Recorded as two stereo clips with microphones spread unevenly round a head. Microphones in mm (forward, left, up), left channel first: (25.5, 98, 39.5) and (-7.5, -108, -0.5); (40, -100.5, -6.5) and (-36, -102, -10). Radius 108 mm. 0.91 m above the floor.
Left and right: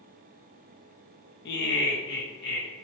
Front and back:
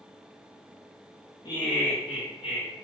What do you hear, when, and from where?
1.4 s laughter: 40° left, 0.6 m; by 2.7 s 35° left, 1.2 m